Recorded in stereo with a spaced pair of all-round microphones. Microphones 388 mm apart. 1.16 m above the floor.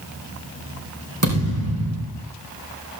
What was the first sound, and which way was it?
A thud, 50° right (ahead or behind).